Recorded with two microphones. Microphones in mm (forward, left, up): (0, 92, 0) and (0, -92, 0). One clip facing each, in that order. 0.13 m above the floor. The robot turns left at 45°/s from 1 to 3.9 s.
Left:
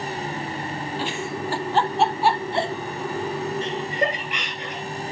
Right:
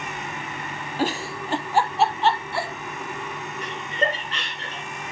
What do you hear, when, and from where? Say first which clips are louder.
1.0 s a giggle: right 5 dB; 45° right (ahead or behind), 0.8 m; by 2.7 s 30° left (ahead or behind), 0.8 m
3.6 s laughter: right 3 dB; 25° left (ahead or behind), 3 m; by 4.8 s 15° left (ahead or behind), 3 m